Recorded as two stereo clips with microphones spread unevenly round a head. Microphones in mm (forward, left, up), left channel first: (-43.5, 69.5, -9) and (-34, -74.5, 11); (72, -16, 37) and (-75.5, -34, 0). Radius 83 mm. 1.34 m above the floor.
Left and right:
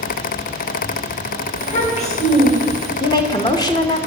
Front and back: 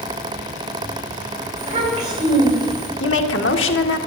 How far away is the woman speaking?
About 1.5 m.